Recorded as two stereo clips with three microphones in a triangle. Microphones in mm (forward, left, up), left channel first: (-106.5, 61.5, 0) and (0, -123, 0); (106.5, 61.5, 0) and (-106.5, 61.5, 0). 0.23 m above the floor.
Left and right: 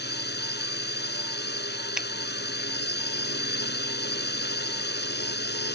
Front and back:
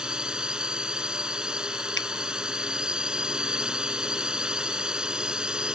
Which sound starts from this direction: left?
A drone, at 0.0 s.